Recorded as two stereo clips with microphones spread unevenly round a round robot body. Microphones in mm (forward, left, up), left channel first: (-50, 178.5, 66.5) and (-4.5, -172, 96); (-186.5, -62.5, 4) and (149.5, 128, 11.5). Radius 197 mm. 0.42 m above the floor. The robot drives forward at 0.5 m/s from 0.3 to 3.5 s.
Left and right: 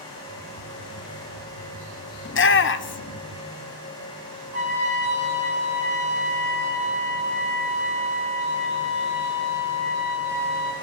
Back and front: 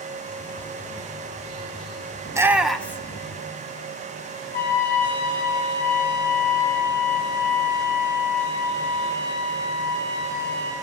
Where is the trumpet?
155° right, 3.5 m.